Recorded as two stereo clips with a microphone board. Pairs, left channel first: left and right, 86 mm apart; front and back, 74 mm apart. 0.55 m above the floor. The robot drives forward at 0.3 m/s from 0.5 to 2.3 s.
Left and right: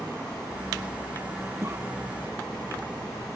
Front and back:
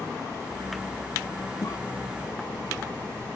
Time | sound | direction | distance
1.6 | a cough | 35° right | ?